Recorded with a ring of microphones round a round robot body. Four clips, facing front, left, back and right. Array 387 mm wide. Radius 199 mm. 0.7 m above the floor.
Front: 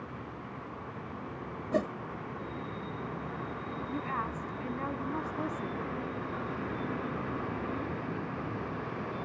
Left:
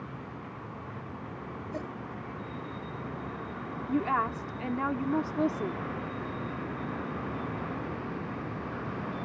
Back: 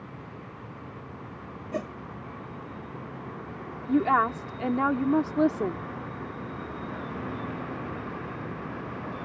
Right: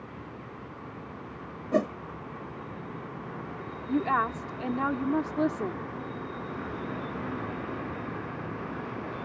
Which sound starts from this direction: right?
A whoosh, at 1.7 s.